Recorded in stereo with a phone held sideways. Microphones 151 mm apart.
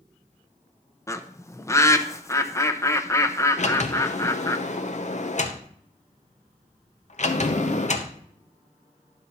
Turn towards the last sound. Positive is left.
turn(degrees=50)  # may be behind; listen again after turning